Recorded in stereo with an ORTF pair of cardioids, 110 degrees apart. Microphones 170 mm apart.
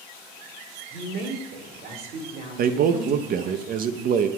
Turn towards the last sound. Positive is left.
turn(degrees=-60)